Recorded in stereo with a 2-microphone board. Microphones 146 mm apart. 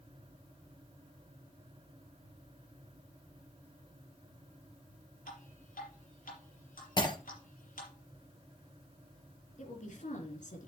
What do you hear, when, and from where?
5.3 s dripping: 75° left (ahead or behind), 5.5 m
7.0 s breaking glass: 30° left (ahead or behind), 3 m
9.6 s a woman speaking: 60° left (ahead or behind), 3.5 m